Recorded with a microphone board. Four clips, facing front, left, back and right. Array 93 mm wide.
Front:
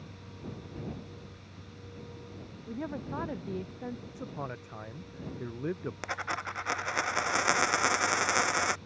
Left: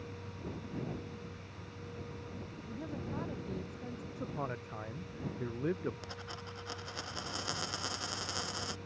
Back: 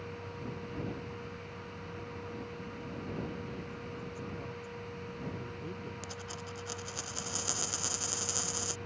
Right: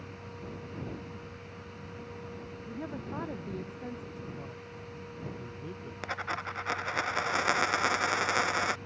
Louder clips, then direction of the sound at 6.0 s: Right 10 dB, front 8 dB; 40° right.